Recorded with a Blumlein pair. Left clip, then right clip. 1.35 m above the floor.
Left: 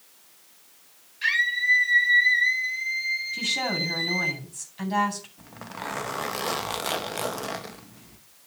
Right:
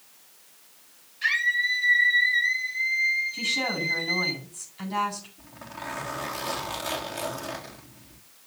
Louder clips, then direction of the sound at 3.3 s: Left 1 dB; 30° left.